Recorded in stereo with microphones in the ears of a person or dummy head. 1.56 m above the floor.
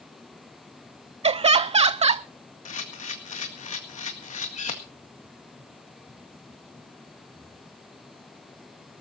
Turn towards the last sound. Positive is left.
turn(degrees=35)  # may be behind; listen again after turning